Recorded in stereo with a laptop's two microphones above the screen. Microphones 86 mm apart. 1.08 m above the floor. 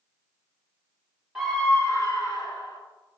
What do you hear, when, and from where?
1.4 s a scream: 5° right (ahead or behind), 0.6 m; by 2.8 s 60° left (ahead or behind), 2.0 m